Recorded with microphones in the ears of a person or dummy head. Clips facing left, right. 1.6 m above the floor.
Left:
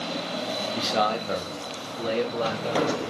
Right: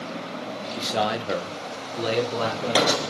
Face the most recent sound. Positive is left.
turn(degrees=-75)  # may be behind; listen again after turning